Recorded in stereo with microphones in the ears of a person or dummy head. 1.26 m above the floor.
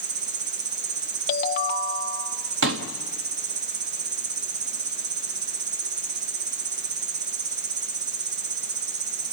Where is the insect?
40° right (ahead or behind), 1.2 m.